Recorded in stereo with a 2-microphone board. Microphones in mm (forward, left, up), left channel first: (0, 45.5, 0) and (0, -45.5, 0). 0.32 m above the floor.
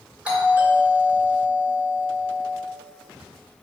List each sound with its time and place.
0.2 s a doorbell: 10° right (ahead or behind), 1.8 m